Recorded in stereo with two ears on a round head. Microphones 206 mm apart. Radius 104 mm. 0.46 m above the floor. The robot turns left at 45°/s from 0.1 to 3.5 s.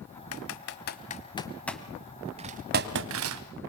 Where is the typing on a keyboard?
65° left (ahead or behind), 1.4 m; by 3.4 s 70° right (ahead or behind), 1.4 m.